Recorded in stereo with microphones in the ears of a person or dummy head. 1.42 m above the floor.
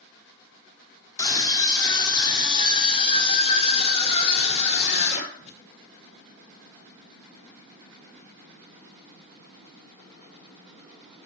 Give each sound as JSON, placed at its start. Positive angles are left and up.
{"t": 1.2, "sound": "a scream", "side_deg": 25, "distance_m": 4.0}